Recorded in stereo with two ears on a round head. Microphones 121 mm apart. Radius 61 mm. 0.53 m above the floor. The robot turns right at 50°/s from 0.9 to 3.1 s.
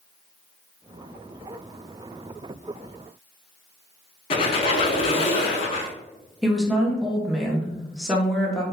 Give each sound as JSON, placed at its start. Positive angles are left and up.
{"t": 4.3, "sound": "a squeak", "side_deg": 45, "distance_m": 0.6}
{"t": 6.4, "sound": "a woman speaking", "side_deg": 0, "distance_m": 0.8}